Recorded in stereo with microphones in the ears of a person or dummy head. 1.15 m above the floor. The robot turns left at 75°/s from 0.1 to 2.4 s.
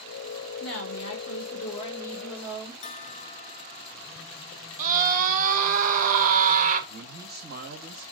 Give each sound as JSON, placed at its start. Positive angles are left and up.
{"t": 0.6, "sound": "a woman speaking", "azimuth_deg": 125, "distance_m": 2.5}
{"t": 2.8, "sound": "a bell", "side_deg": 35, "distance_m": 0.5}
{"t": 4.8, "sound": "a scream", "side_deg": -45, "distance_m": 1.5}
{"t": 6.9, "sound": "a man speaking", "side_deg": -50, "distance_m": 2.5}